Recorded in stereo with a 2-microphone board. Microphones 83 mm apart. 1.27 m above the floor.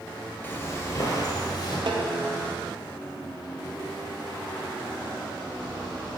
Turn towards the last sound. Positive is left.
turn(degrees=-65)  # may be behind; listen again after turning